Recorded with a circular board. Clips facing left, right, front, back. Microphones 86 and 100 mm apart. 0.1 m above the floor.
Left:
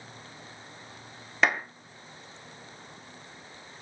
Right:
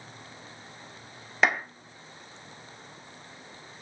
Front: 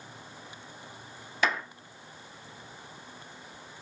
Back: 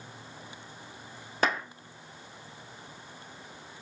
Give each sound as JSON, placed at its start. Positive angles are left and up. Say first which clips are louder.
{"t": 1.4, "sound": "a clap", "louder": "right 1 dB, back 1 dB", "azimuth_deg": 180, "distance_m": 1.5}